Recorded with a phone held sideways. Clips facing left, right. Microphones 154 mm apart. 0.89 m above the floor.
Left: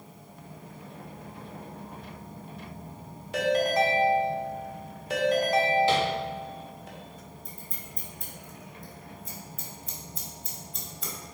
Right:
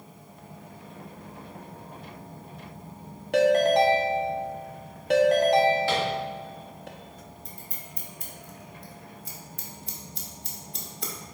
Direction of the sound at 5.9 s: 20° left (ahead or behind).